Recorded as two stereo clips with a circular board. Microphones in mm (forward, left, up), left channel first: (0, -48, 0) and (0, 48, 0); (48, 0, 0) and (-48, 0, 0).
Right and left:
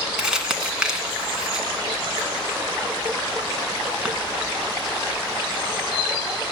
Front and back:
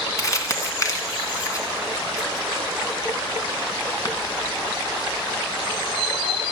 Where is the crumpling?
15° left, 1.4 m.